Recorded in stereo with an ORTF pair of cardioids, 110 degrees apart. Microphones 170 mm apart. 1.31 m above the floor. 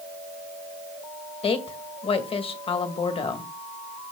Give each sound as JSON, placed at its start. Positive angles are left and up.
{"t": 1.4, "sound": "a woman speaking", "azimuth_deg": 35, "distance_m": 1.9}